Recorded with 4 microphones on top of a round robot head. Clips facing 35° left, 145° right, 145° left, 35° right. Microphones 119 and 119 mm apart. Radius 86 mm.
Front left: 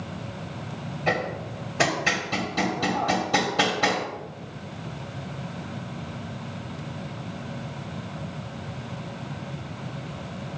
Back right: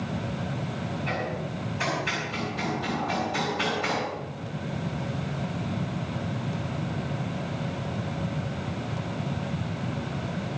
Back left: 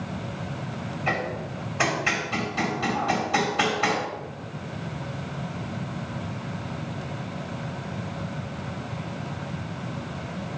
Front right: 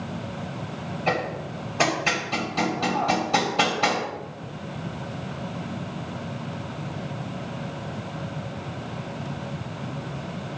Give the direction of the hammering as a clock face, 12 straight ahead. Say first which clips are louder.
Front left 8 dB, front right 3 dB; 11 o'clock.